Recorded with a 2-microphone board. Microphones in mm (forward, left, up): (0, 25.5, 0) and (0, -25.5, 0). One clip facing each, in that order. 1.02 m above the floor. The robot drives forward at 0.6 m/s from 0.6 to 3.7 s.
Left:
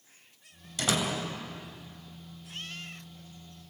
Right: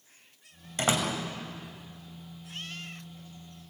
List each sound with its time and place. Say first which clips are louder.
0.8 s a door slam: right 2 dB; 30° right (ahead or behind), 4.5 m; by 1.1 s 35° right (ahead or behind), 4.5 m